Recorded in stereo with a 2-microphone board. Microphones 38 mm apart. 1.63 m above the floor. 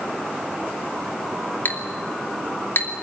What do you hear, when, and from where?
1.6 s a clink: 55° left (ahead or behind), 2.5 m